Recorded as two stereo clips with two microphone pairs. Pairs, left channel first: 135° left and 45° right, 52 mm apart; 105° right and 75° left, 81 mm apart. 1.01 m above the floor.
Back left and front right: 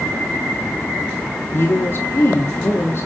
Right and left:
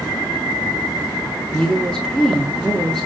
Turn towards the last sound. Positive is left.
turn(degrees=170)